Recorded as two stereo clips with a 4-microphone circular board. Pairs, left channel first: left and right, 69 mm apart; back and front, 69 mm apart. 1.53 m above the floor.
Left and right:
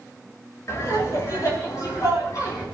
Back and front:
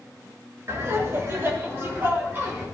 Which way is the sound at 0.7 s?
45° left.